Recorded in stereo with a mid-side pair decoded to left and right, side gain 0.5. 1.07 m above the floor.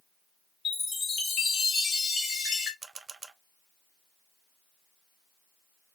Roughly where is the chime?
Ahead left.